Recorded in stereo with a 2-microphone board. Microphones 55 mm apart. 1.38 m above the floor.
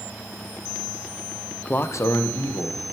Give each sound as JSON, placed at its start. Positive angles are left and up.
{"t": 1.6, "sound": "a man speaking", "side_deg": 20, "distance_m": 0.5}